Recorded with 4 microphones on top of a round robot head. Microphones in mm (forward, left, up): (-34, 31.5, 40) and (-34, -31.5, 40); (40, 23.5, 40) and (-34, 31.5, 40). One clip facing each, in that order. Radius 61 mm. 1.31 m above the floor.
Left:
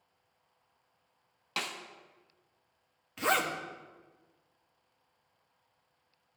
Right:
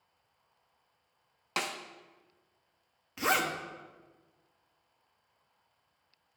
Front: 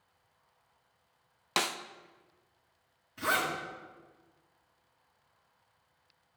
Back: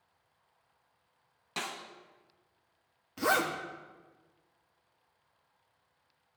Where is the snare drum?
20° right, 0.5 m.